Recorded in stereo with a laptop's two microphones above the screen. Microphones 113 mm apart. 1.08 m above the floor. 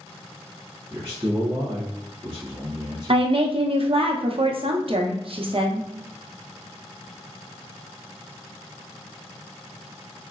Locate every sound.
0.9 s a man speaking: 40° right (ahead or behind), 0.8 m
3.1 s a woman speaking: 55° right (ahead or behind), 0.6 m